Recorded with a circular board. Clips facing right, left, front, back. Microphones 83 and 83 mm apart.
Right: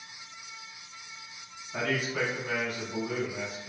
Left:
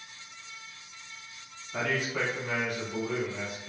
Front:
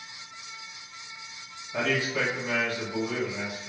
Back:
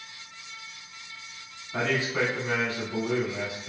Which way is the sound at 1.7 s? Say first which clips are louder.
Even, back 1 dB; 175° left.